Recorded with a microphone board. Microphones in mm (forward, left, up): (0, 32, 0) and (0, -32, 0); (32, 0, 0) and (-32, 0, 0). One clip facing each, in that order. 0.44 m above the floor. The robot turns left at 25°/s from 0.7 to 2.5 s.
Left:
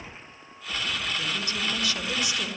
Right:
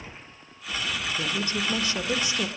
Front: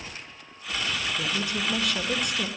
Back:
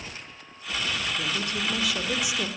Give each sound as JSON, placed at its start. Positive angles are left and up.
{"t": 1.2, "sound": "a woman speaking", "azimuth_deg": -80, "distance_m": 1.3}